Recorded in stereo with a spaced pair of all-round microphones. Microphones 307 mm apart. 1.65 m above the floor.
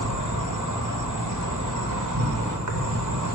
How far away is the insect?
About 1.0 m.